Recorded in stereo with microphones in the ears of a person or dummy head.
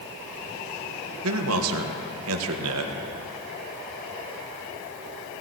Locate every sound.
1.2 s a man speaking: 75° right (ahead or behind), 1.4 m